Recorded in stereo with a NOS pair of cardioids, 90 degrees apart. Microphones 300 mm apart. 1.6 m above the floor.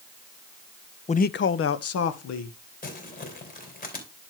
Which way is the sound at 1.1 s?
20° left.